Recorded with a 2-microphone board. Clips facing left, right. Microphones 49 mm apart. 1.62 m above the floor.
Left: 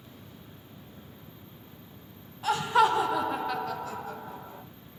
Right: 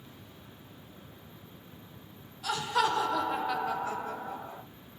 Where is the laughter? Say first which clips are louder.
Left 5 dB; 30° left (ahead or behind), 1.1 m; by 4.6 s 55° right (ahead or behind), 0.9 m.